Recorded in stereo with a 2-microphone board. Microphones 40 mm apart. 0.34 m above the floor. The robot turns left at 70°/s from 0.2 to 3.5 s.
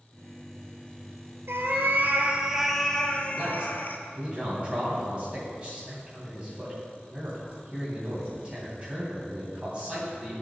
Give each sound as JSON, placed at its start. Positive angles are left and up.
{"t": 1.5, "sound": "a cat meowing", "azimuth_deg": -90, "distance_m": 1.0}
{"t": 3.3, "sound": "a man speaking", "side_deg": -20, "distance_m": 2.5}